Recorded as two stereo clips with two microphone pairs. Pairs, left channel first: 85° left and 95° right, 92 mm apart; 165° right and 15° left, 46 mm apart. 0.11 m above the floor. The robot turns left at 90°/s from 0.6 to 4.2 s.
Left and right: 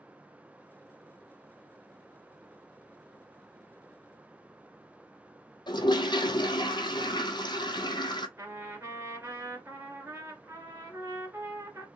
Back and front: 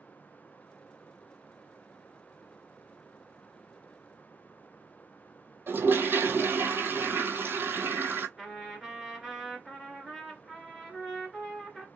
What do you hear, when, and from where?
5.7 s a toilet flushing: 50° left, 0.7 m
8.4 s a trumpet: 55° right, 1.8 m